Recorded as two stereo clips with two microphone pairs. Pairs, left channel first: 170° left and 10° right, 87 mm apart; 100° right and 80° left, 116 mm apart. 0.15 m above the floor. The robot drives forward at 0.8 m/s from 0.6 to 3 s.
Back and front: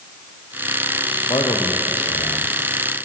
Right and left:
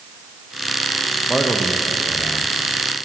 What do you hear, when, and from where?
1.3 s a man speaking: 170° left, 4 m; by 2.5 s 175° left, 5 m